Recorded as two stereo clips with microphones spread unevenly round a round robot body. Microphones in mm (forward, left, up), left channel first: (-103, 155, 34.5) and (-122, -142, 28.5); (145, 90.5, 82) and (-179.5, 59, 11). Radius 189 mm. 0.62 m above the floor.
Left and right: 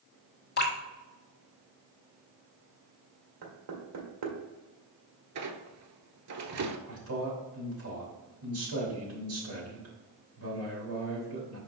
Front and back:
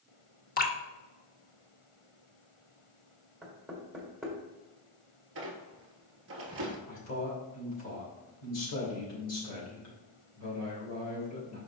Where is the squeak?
110° right, 1.0 m.